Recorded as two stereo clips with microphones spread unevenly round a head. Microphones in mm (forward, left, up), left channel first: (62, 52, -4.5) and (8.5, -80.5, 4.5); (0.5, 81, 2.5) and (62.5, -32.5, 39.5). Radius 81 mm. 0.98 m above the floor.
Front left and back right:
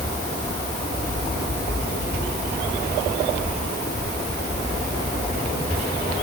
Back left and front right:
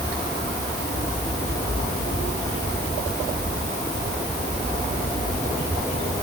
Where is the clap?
I don't hear a clap.